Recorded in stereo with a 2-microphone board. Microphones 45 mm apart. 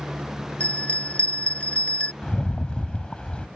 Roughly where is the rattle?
Left.